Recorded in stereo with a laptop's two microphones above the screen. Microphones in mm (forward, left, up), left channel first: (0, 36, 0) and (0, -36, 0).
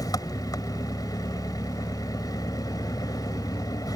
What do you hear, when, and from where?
0.0 s an engine running: 60° left (ahead or behind)